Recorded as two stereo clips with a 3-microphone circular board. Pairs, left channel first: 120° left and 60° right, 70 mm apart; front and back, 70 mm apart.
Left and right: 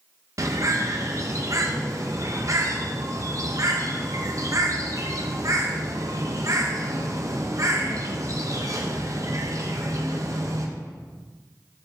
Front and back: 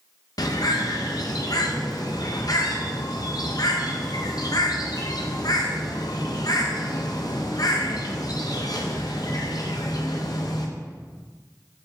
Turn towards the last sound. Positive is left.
turn(degrees=-20)